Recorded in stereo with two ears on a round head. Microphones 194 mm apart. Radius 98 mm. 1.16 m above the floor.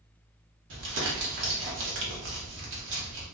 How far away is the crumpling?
About 0.9 m.